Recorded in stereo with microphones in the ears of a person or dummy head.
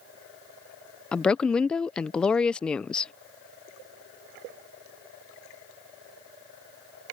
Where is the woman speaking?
10° left (ahead or behind).